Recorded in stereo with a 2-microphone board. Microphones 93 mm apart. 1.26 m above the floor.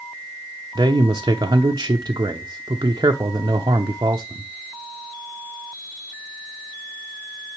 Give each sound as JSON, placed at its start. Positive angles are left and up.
{"t": 0.8, "sound": "a man speaking", "side_deg": -45, "distance_m": 0.6}